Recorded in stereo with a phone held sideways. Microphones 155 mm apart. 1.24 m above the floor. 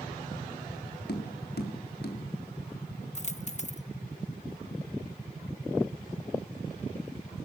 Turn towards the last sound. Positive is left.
turn(degrees=45)  # may be behind; listen again after turning